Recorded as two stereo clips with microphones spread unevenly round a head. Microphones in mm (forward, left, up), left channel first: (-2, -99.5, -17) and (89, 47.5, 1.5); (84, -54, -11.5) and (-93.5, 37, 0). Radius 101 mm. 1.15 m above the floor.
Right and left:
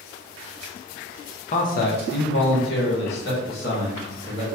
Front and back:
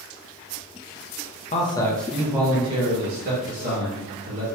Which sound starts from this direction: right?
A man speaking, at 1.5 s.